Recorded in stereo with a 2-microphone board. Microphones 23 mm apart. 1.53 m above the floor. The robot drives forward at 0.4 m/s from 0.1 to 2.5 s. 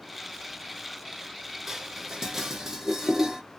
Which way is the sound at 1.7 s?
20° right (ahead or behind).